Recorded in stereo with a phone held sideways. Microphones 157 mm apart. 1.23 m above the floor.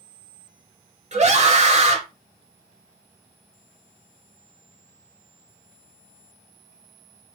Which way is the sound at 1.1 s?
45° right (ahead or behind).